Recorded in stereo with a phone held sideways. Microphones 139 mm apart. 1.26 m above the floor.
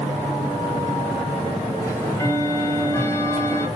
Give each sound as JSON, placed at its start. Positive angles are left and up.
{"t": 1.8, "sound": "ticking", "side_deg": 20, "distance_m": 0.9}